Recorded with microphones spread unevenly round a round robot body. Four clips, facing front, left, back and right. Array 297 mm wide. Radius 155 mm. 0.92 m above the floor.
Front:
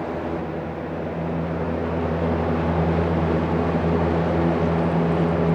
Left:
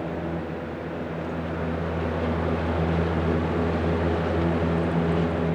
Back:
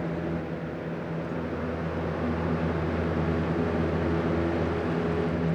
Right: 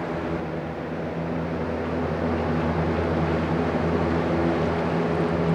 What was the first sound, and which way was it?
Only background noise.